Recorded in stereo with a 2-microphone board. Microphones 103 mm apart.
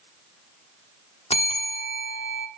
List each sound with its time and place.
1.3 s a bell: 80° left, 1.4 m